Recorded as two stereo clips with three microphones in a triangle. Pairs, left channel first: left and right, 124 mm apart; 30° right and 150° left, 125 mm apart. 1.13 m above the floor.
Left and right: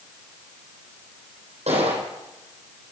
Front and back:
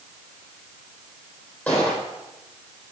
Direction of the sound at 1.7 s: 105° right.